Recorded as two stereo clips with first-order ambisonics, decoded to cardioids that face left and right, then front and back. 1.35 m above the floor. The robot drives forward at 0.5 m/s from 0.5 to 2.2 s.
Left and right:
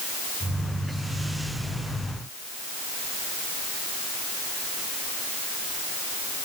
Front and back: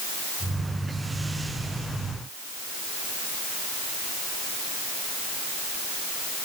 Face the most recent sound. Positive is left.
No sound to turn to.